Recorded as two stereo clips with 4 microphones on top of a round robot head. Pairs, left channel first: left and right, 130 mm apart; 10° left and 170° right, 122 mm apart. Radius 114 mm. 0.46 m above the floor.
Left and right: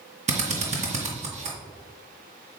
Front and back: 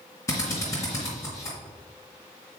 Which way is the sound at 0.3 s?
60° right.